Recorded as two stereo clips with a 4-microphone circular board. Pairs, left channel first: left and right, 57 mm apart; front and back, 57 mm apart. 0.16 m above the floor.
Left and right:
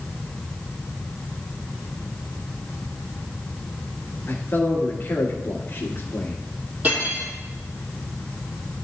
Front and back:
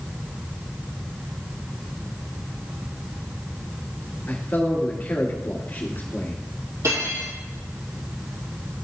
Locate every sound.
4.3 s a man speaking: 50° left, 2.0 m
6.8 s cutlery clinking: 150° right, 3.5 m